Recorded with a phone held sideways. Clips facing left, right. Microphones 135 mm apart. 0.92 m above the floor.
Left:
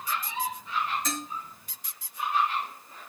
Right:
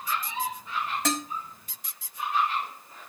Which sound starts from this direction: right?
Dishes clattering, at 1.1 s.